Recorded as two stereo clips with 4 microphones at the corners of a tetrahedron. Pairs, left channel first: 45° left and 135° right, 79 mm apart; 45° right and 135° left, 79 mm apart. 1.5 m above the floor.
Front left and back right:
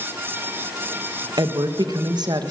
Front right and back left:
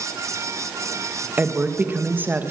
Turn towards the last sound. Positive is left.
turn(degrees=-160)